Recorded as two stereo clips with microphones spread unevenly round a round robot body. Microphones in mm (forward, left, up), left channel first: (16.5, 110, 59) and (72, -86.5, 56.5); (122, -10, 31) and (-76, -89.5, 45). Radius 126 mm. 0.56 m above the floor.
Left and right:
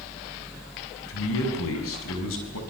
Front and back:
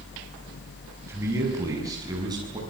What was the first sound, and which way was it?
A man speaking, 120° left.